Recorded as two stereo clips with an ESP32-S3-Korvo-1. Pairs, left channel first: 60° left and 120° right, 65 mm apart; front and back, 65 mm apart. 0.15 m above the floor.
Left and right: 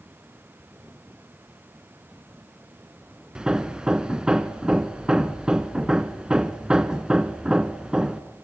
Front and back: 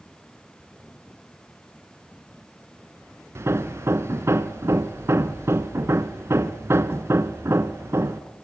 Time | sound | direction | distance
3.4 | hammering | 165° left | 0.9 m